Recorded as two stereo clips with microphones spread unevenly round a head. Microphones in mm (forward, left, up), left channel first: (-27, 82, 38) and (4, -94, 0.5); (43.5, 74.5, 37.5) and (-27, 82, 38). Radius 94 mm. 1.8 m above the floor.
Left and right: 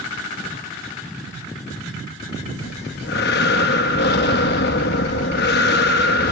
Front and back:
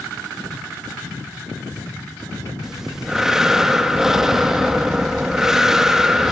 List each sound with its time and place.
2.6 s breathing: 90° left, 1.8 m